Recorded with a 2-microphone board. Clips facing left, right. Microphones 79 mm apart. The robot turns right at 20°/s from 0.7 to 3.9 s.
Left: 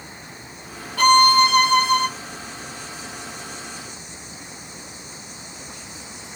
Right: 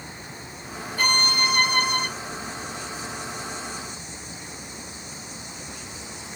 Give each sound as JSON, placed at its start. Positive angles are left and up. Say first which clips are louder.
{"t": 1.0, "sound": "a violin", "louder": "left 11 dB", "side_deg": 70, "distance_m": 1.7}